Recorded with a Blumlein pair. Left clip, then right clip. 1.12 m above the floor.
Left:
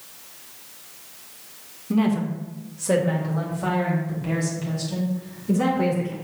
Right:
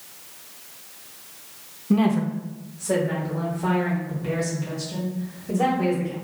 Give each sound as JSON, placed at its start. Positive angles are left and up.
{"t": 1.9, "sound": "a woman speaking", "azimuth_deg": -10, "distance_m": 0.8}